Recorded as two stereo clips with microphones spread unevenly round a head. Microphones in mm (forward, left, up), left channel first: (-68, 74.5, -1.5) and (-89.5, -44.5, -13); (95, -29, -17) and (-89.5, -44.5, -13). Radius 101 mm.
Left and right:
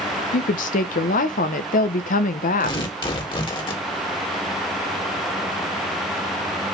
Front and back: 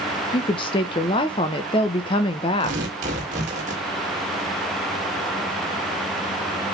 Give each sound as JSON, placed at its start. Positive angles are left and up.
{"t": 0.3, "sound": "a woman speaking", "azimuth_deg": 75, "distance_m": 0.8}
{"t": 2.6, "sound": "tearing paper", "azimuth_deg": 130, "distance_m": 2.0}